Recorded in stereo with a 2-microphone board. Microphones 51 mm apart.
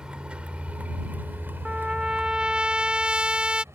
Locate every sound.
0.0 s a vehicle: 15° right (ahead or behind); by 3.7 s 65° right (ahead or behind)
1.6 s a trumpet: 20° right (ahead or behind)